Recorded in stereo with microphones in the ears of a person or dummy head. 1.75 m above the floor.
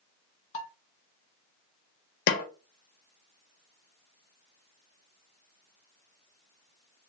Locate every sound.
0.5 s dishes clattering: 40° left (ahead or behind), 1.8 m
2.3 s a snare drum: 55° left (ahead or behind), 0.6 m